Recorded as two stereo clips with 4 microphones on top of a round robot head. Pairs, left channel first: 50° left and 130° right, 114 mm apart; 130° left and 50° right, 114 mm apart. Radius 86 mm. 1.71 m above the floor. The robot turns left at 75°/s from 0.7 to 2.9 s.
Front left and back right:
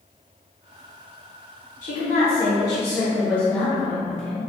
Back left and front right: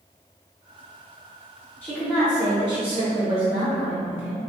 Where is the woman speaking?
60° left, 0.8 m; by 4.4 s 20° right, 0.8 m.